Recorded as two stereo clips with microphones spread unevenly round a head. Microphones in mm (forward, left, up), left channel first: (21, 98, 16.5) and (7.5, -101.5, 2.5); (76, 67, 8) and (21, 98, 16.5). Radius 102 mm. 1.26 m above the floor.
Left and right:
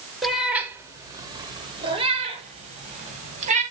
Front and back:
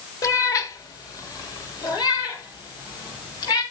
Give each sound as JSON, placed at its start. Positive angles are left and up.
{"t": 0.2, "sound": "a cat meowing", "azimuth_deg": 0, "distance_m": 1.4}